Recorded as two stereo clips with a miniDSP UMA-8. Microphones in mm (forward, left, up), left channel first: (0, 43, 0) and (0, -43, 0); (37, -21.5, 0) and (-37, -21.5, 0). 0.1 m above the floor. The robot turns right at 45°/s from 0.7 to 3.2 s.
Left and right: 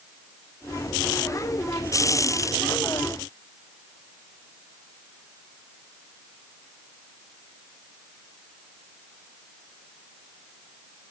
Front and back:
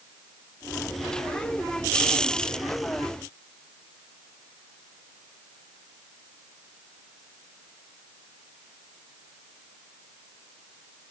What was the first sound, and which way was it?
Only background noise.